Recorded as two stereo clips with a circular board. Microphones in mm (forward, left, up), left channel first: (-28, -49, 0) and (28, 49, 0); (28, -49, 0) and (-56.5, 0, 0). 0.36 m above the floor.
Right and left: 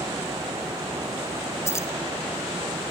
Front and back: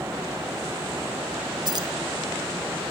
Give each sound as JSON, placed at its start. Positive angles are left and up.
{"t": 1.6, "sound": "keys jangling", "azimuth_deg": 180, "distance_m": 0.7}